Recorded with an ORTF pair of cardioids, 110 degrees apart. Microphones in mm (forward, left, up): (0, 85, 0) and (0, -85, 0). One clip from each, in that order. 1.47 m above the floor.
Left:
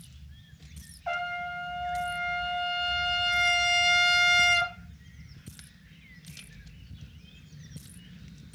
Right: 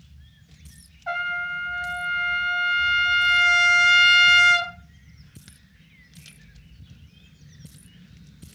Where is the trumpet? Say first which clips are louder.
Right 5 dB; straight ahead, 0.8 m.